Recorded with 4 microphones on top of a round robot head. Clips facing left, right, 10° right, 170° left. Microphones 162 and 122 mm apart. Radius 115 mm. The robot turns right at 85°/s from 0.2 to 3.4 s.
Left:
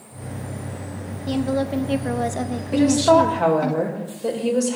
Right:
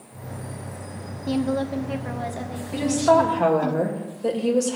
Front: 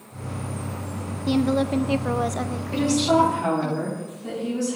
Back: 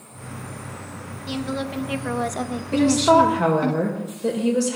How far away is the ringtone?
No ringtone in this recording.